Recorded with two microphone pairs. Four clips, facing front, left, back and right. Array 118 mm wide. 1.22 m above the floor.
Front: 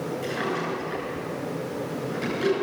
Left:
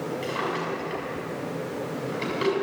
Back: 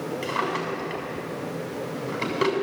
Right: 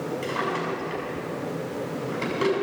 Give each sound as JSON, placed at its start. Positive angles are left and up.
{"t": 0.2, "sound": "a drawer", "azimuth_deg": -170, "distance_m": 7.0}